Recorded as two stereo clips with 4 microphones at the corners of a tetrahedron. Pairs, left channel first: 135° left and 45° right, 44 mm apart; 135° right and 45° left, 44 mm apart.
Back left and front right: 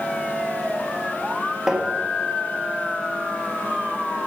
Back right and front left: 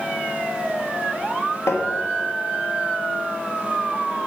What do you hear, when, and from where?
1.7 s tapping: 125° right, 1.5 m